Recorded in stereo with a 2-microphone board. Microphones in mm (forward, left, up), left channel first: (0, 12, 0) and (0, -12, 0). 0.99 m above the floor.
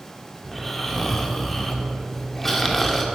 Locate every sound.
0.4 s snoring: 10° left (ahead or behind), 1.6 m